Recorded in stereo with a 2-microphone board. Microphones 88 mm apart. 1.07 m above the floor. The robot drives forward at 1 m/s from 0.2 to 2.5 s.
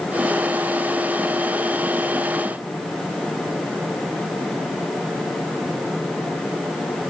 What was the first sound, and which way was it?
Only background noise.